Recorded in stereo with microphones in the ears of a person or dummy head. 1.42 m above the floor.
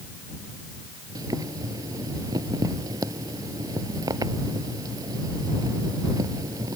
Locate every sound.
1.1 s boiling: 15° right (ahead or behind)